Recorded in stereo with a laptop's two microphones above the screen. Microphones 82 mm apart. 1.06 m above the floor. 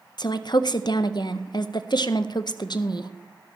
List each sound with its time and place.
0.2 s a woman speaking: 60° left (ahead or behind), 0.6 m